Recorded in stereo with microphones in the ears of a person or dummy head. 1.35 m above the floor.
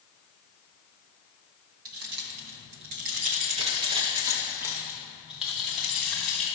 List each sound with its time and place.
1.9 s keys jangling: 65° right (ahead or behind), 1.2 m; by 6.5 s 5° right (ahead or behind), 3 m